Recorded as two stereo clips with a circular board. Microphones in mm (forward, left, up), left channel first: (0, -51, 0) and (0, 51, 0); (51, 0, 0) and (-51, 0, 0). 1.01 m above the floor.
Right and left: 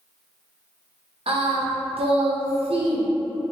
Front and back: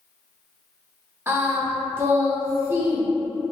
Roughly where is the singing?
Left.